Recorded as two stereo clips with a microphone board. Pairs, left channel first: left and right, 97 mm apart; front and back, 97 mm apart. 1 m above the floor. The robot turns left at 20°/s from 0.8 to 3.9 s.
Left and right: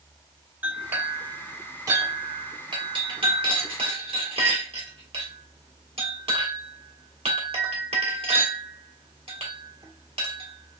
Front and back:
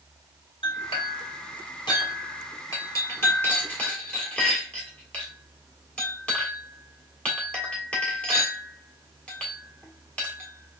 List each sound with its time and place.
0.6 s a clink: 15° right, 1.3 m; by 10.8 s 80° right, 1.3 m